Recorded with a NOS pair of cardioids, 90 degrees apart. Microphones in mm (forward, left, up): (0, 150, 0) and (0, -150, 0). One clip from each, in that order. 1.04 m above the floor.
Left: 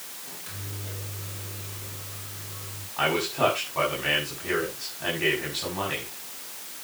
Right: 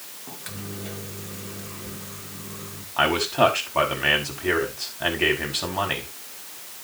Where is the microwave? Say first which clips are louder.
Right 6 dB; 55° right, 2.5 m.